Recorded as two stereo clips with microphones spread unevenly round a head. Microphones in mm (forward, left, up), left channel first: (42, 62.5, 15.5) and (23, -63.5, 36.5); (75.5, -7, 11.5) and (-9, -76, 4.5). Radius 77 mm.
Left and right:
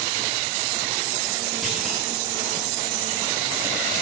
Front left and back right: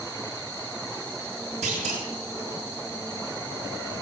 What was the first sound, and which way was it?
A clunk, 170° left.